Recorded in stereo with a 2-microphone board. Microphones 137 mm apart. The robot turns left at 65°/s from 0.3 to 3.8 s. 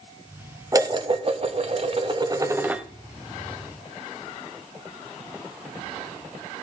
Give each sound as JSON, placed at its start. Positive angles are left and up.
{"t": 0.7, "sound": "dishes clattering", "azimuth_deg": -35, "distance_m": 0.8}